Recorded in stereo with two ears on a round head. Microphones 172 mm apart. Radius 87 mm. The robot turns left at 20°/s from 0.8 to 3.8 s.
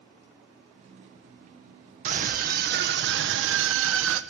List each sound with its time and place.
2.0 s a scream: 40° right, 1.7 m; by 4.2 s 75° right, 1.7 m